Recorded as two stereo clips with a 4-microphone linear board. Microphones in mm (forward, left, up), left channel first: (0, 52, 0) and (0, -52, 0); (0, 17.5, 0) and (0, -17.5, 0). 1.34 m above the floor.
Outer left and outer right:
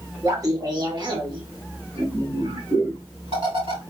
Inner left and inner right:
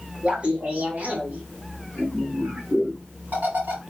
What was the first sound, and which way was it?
Laughter, 30° right (ahead or behind).